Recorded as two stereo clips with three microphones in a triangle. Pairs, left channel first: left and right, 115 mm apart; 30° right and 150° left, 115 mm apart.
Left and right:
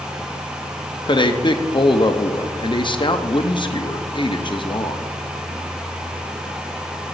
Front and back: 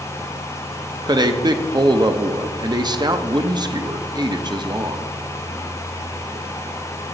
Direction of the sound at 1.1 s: 115° left.